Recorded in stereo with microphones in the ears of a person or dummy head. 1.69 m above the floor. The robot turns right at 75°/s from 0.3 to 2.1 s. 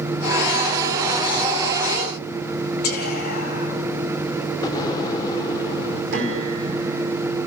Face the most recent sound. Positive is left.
turn(degrees=-65)  # may be behind; listen again after turning